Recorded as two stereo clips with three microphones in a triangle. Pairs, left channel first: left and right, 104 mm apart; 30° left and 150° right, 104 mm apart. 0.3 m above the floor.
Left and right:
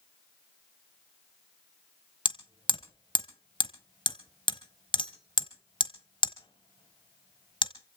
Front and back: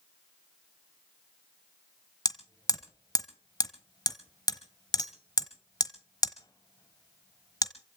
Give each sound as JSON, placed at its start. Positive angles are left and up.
{"t": 2.2, "sound": "hammering", "azimuth_deg": 70, "distance_m": 1.1}